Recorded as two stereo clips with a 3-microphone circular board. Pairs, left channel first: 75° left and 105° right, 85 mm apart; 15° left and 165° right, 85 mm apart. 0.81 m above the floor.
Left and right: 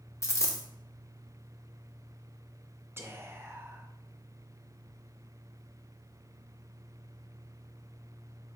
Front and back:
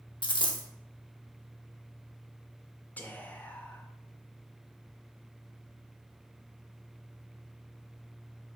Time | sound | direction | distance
0.2 | a dropped coin | 20° left | 0.7 m
3.0 | whispering | 50° right | 0.7 m